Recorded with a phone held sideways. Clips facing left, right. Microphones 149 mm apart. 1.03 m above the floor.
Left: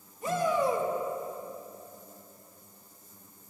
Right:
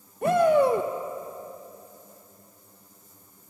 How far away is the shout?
About 0.9 m.